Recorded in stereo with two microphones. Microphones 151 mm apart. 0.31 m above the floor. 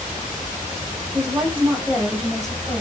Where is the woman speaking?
20° right (ahead or behind), 1.2 m; by 2.8 s 5° left (ahead or behind), 1.6 m.